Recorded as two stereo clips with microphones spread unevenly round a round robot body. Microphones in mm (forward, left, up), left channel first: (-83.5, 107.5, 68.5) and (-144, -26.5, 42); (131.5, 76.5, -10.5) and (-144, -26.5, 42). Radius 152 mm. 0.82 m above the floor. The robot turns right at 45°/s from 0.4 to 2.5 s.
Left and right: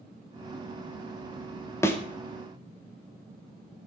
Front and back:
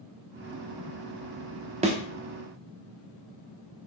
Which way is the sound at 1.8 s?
135° left.